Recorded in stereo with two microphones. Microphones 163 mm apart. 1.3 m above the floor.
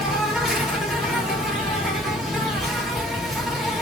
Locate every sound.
0.0 s an insect: centre (ahead or behind), 1.0 m